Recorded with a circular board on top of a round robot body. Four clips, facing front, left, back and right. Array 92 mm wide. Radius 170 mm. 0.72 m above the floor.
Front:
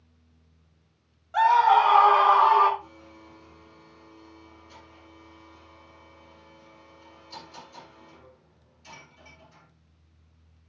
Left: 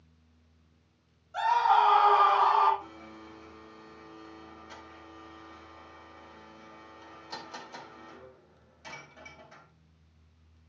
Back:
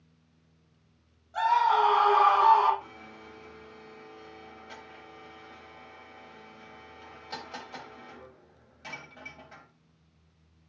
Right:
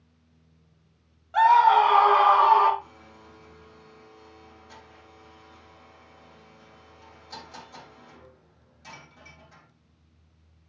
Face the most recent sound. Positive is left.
turn(degrees=160)